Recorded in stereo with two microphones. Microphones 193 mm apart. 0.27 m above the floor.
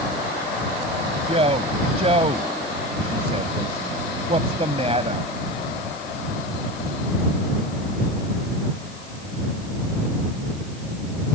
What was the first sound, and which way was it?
A man speaking, 35° right (ahead or behind).